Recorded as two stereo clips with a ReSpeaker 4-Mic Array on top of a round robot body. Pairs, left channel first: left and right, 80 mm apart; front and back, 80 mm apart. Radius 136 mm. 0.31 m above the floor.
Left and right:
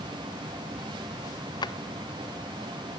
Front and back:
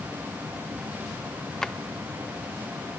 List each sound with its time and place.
1.6 s a drawer: 80° left, 0.5 m